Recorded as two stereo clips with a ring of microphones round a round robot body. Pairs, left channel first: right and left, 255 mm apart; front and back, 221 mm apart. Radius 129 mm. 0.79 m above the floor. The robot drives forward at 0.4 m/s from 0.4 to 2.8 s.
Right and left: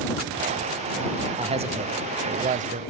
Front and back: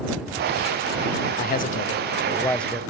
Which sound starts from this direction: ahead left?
A man speaking, at 1.4 s.